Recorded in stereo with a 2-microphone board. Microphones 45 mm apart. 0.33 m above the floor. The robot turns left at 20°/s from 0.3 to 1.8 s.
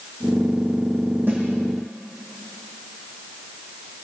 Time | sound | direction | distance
1.3 | a snare drum | 40° right (ahead or behind) | 8.5 m